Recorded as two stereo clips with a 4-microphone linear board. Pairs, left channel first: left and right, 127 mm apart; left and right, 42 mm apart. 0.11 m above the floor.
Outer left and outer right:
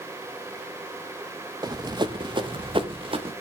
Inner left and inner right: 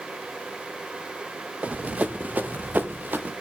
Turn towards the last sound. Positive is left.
turn(degrees=-45)  # may be behind; listen again after turning